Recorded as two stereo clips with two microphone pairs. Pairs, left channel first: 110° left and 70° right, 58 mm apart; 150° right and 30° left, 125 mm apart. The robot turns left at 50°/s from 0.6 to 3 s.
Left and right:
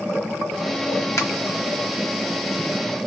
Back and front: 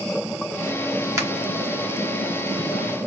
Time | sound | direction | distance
1.2 | a finger snap | 95° left | 1.2 m